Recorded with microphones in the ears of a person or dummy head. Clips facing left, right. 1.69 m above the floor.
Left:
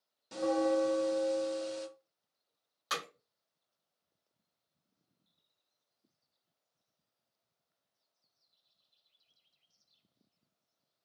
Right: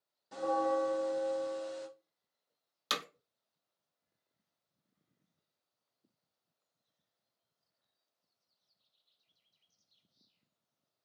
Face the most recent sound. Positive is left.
turn(degrees=-50)  # may be behind; listen again after turning